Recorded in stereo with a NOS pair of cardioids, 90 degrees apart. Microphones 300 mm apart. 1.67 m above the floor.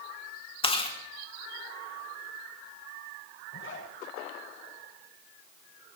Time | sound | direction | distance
0.6 | chewing | 20° left | 3.5 m
3.5 | a zipper | 45° left | 8 m